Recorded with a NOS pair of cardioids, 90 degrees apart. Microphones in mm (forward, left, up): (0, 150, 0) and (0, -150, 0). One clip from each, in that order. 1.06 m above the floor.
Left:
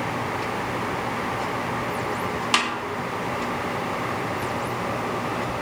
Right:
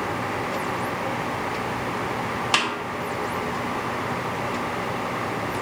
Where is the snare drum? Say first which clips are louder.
Even; straight ahead, 0.7 m.